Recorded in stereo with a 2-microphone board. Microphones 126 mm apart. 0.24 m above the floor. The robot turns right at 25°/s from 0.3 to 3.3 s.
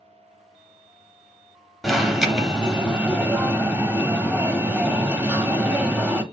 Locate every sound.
1.8 s an alarm: centre (ahead or behind), 0.7 m; by 6.2 s 15° right (ahead or behind), 0.7 m